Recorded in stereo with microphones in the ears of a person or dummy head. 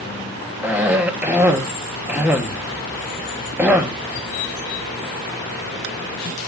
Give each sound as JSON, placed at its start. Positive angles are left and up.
{"t": 0.6, "sound": "a cough", "side_deg": -10, "distance_m": 2.0}